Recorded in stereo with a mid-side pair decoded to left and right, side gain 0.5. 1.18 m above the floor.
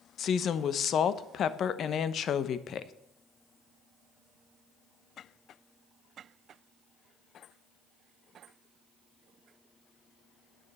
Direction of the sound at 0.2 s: 55° left.